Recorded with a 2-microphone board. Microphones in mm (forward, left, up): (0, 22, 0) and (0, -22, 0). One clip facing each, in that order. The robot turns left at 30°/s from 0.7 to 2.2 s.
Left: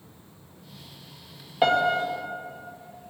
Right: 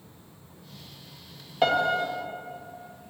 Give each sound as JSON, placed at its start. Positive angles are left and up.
{"t": 1.6, "sound": "a piano", "side_deg": 5, "distance_m": 1.6}